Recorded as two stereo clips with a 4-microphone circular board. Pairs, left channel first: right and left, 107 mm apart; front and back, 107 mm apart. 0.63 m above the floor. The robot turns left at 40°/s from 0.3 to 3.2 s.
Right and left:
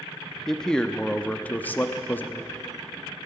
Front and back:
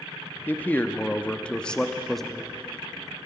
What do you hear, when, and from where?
0.5 s a man speaking: 15° right, 0.5 m; by 2.5 s 95° right, 0.5 m